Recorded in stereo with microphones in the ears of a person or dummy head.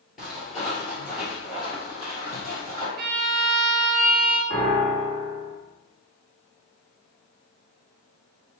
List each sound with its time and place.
0.2 s footsteps: centre (ahead or behind), 1.8 m; by 2.9 s 15° right (ahead or behind), 3 m
3.0 s a violin: 45° right (ahead or behind), 0.5 m
4.5 s a piano: 55° right (ahead or behind), 1.7 m